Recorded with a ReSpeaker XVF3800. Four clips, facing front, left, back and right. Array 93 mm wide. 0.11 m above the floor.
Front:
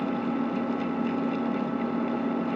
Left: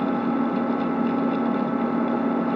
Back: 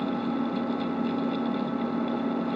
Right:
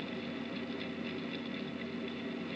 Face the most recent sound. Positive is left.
turn(degrees=90)